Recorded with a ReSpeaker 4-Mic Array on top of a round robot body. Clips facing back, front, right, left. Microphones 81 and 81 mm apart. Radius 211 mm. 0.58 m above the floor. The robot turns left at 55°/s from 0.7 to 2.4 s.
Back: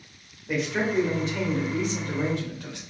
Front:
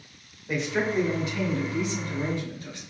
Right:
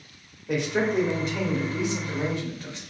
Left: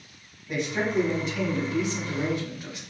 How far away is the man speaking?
About 2 m.